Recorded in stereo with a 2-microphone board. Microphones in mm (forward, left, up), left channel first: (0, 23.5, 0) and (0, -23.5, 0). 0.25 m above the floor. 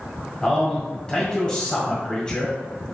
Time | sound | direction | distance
0.4 | a man speaking | 20° left (ahead or behind) | 1.4 m